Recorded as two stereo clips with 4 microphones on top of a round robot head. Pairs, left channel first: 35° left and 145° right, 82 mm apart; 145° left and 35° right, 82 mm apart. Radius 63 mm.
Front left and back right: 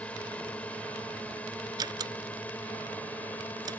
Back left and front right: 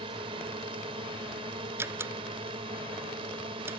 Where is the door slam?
100° right.